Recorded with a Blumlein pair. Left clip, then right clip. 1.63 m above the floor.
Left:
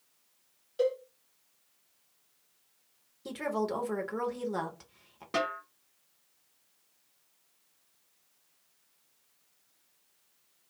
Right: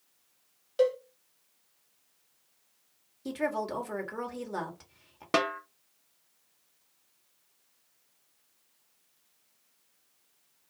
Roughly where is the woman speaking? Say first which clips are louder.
Right 1 dB; ahead.